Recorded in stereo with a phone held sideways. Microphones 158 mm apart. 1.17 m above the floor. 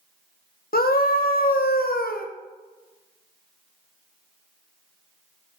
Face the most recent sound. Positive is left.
turn(degrees=70)  # may be behind; listen again after turning